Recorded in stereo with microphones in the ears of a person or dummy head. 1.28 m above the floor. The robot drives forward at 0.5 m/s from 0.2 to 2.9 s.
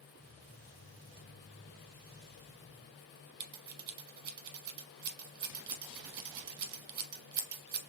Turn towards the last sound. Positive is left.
turn(degrees=-45)  # may be behind; listen again after turning